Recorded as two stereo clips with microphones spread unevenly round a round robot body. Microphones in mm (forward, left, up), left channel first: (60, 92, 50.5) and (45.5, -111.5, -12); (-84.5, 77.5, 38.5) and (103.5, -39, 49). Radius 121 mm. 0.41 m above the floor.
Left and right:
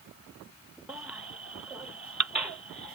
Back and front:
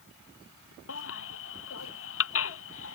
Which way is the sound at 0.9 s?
Straight behind.